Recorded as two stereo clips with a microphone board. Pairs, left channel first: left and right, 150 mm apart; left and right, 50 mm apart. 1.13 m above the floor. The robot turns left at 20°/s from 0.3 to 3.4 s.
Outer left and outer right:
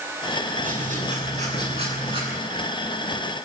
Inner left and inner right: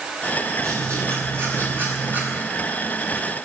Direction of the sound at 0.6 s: 115° right.